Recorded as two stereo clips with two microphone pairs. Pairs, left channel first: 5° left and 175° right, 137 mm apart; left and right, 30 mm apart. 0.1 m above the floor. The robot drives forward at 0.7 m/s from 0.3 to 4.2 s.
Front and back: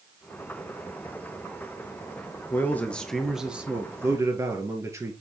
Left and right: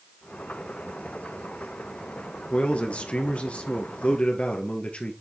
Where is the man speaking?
70° left, 1.7 m; by 5.1 s 125° left, 1.8 m.